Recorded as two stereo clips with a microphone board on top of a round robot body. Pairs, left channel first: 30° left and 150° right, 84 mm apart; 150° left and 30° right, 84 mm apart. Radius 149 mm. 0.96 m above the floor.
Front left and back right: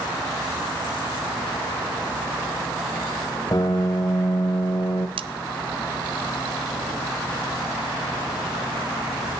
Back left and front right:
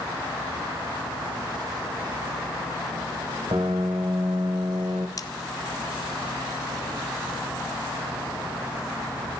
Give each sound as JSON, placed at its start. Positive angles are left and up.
{"t": 3.5, "sound": "a piano", "azimuth_deg": -10, "distance_m": 0.8}
{"t": 5.2, "sound": "cutlery clinking", "azimuth_deg": -160, "distance_m": 0.7}